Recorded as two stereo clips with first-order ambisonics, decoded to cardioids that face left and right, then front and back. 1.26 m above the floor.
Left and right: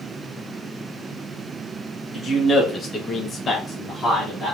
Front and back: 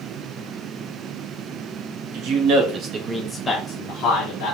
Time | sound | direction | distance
2.1 | a man speaking | 165° left | 1.0 m